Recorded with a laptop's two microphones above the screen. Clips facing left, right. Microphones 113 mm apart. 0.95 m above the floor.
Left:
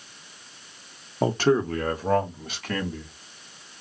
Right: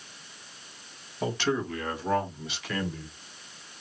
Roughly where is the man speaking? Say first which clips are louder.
Left 7 dB; left.